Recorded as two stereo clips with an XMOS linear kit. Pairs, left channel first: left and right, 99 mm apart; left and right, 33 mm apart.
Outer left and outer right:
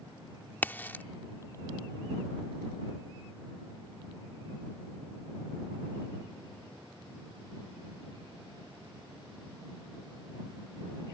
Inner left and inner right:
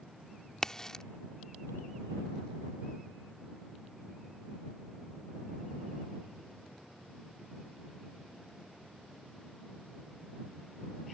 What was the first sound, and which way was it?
A crack, 20° left (ahead or behind).